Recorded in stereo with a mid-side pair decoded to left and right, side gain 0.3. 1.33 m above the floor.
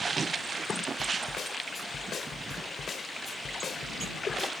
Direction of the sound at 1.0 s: 65° left.